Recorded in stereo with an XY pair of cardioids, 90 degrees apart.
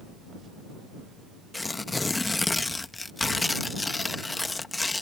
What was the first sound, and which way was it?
Tearing paper, 25° left.